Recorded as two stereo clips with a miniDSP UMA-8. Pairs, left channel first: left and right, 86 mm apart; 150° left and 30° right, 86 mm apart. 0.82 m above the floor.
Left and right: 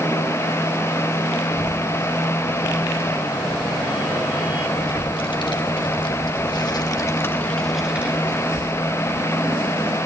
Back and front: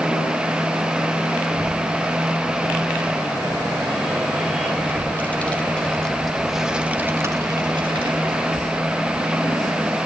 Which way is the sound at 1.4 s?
90° left.